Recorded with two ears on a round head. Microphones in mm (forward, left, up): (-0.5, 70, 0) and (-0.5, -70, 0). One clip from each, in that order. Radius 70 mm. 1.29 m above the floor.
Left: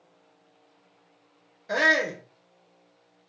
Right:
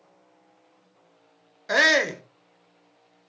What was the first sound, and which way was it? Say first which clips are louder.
A shout: right 3 dB; 40° right (ahead or behind).